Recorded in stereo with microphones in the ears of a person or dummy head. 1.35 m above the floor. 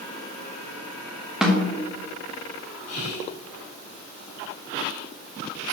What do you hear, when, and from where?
1.4 s a snare drum: centre (ahead or behind), 1.2 m
2.9 s whispering: 40° left (ahead or behind), 3 m